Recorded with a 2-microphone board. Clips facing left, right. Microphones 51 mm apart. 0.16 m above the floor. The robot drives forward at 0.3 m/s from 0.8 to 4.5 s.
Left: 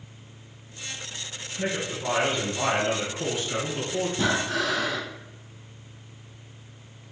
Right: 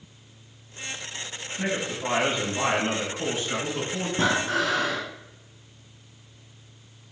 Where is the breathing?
45° right (ahead or behind), 1.0 m; by 5.0 s 40° right (ahead or behind), 1.0 m.